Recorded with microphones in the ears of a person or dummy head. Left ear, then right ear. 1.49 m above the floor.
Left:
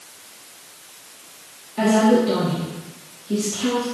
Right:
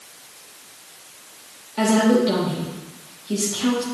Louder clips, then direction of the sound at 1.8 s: Left 1 dB; 25° right (ahead or behind).